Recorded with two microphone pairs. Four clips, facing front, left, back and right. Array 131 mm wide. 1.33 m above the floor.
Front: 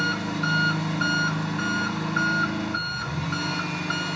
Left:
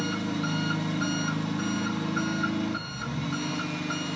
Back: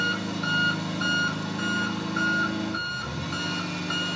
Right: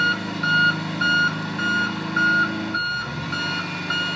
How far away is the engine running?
About 1.6 m.